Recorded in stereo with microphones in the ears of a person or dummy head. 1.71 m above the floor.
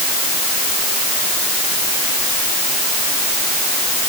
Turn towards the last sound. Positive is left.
No sound to turn to.